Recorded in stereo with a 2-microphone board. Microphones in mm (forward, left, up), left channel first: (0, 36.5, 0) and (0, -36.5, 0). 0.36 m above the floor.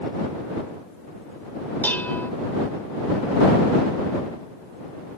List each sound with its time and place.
1.8 s dishes clattering: 25° left (ahead or behind)